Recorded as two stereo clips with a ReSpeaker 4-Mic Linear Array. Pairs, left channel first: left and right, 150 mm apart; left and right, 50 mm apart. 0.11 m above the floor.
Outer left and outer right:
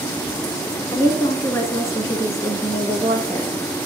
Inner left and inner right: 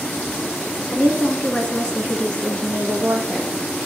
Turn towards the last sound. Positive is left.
turn(degrees=15)  # may be behind; listen again after turning